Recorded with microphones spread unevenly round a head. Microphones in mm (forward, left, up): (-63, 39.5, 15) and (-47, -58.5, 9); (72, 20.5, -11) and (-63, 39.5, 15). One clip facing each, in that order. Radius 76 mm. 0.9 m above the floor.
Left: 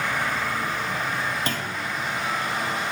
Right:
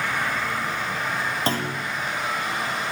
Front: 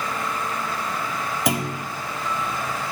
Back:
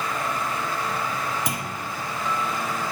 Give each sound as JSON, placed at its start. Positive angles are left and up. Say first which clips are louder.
{"t": 1.5, "sound": "a clunk", "louder": "right 3 dB, front 6 dB", "azimuth_deg": -15, "distance_m": 2.0}